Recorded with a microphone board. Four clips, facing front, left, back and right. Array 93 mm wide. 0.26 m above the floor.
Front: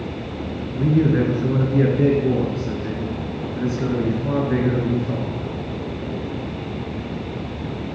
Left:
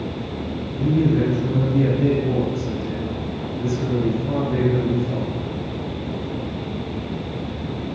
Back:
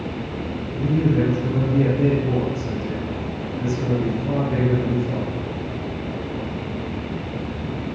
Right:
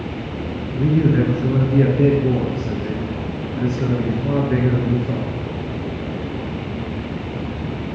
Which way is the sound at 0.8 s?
45° right.